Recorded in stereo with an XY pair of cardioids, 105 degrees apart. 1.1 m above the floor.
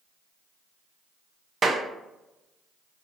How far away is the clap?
About 0.6 m.